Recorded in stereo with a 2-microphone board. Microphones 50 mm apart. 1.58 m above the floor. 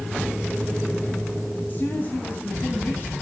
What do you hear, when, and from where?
1.7 s a woman speaking: 40° left (ahead or behind), 9.5 m